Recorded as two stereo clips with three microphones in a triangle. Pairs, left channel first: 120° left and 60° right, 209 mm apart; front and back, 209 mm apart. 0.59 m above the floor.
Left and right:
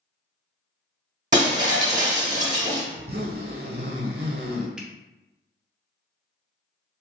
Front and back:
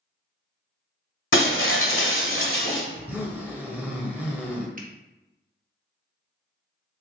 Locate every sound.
1.3 s breaking glass: 5° right, 1.1 m
2.9 s a zipper: 100° right, 0.9 m
4.8 s a finger snap: 145° right, 0.6 m